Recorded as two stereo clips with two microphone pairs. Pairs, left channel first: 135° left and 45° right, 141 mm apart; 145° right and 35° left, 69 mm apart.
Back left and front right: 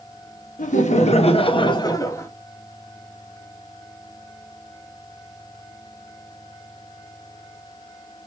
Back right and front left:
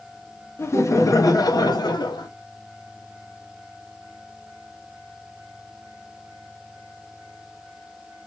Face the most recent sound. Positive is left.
turn(degrees=-155)